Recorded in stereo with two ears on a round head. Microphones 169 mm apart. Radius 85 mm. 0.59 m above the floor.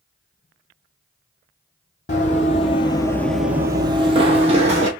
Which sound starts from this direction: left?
Running footsteps, at 2.1 s.